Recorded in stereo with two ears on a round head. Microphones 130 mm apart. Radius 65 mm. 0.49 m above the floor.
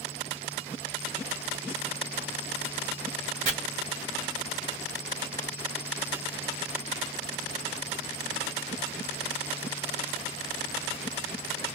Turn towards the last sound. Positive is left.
turn(degrees=-40)  # may be behind; listen again after turning